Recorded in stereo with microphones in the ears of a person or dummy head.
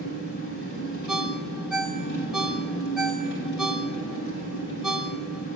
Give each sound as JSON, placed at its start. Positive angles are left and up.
{"t": 0.0, "sound": "an engine running", "side_deg": 75, "distance_m": 3.5}
{"t": 1.1, "sound": "a ringtone", "side_deg": 0, "distance_m": 0.7}